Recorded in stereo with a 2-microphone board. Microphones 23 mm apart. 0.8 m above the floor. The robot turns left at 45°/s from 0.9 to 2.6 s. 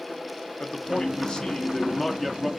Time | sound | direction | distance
0.6 | a man speaking | 70° left | 0.6 m